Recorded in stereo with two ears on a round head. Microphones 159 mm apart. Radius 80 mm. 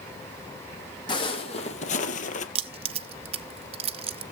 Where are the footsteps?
25° left (ahead or behind), 2.5 m; by 2.5 s 45° left (ahead or behind), 1.4 m.